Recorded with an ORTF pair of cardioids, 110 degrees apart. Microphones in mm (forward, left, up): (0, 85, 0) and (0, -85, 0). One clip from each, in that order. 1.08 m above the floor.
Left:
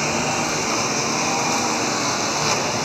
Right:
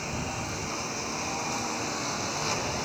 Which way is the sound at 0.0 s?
70° left.